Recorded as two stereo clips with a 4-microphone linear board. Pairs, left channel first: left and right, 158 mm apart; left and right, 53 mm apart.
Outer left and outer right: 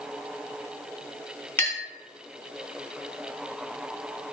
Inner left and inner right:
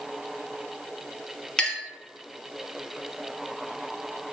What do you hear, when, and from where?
1.6 s a clink: 15° left (ahead or behind), 0.7 m